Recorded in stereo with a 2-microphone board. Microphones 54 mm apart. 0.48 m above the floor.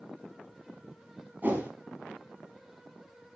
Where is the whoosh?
35° right (ahead or behind), 1.7 m.